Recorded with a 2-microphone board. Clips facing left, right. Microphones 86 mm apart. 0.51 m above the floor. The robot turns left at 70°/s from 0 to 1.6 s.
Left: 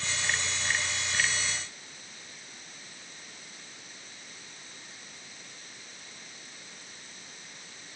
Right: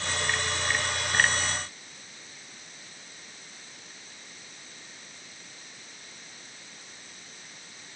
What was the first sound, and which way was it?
Only background noise.